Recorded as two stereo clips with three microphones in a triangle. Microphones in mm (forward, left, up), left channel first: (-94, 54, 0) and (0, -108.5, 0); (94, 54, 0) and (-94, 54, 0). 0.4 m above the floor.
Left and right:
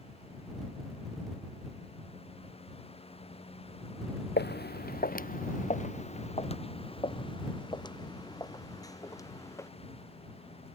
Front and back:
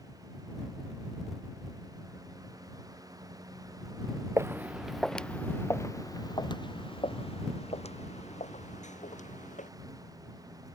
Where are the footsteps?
105° left; by 9.7 s 45° left.